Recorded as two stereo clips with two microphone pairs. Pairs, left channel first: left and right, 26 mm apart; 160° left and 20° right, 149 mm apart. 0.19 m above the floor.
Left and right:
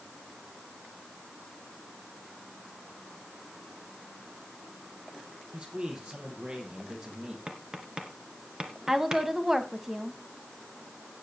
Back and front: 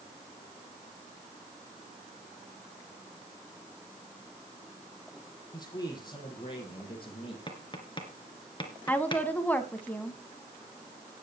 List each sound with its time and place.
5.5 s a man speaking: 140° right, 5 m; by 7.4 s 150° right, 5.5 m
7.5 s tapping: 150° right, 2.5 m
8.9 s a woman speaking: 145° right, 1.3 m